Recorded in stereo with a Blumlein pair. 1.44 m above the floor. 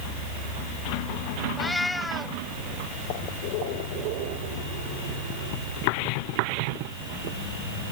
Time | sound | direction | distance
1.6 | a cat meowing | 10° left | ?